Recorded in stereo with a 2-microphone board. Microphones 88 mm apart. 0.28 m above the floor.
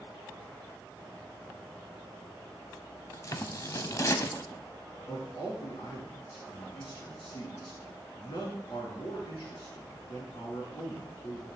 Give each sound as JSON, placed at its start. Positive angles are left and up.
{"t": 3.1, "sound": "scissors", "side_deg": 40, "distance_m": 0.6}
{"t": 5.1, "sound": "a man speaking", "side_deg": 70, "distance_m": 3.5}